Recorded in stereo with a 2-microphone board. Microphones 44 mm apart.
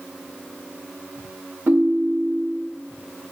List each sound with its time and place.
1.7 s a ringtone: 45° right (ahead or behind), 0.9 m